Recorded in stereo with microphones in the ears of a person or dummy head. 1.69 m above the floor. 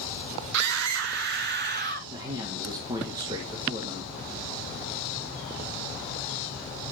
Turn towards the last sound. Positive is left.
turn(degrees=-20)  # may be behind; listen again after turning